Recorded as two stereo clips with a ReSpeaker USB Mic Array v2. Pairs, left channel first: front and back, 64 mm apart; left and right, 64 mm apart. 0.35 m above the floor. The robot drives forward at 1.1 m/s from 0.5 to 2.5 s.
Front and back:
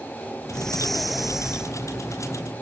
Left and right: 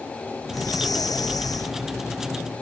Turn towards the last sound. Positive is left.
turn(degrees=115)